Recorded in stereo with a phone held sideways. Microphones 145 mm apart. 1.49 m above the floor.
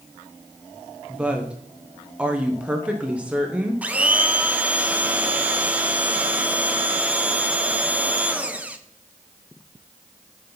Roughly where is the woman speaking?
Centre.